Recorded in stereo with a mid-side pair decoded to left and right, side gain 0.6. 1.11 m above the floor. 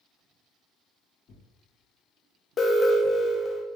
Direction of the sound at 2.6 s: 35° left.